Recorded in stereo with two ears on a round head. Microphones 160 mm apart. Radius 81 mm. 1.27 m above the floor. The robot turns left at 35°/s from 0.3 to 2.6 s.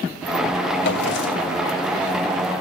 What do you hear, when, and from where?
0.8 s a drawer: 70° left (ahead or behind), 2.5 m; by 1.6 s 65° left (ahead or behind), 2.5 m